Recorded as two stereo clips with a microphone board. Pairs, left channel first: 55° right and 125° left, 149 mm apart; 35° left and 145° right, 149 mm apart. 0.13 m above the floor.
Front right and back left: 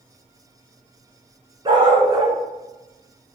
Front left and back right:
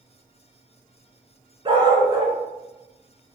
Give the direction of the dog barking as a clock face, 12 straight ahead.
6 o'clock.